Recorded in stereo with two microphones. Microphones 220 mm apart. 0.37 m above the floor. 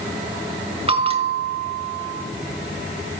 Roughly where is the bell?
Right.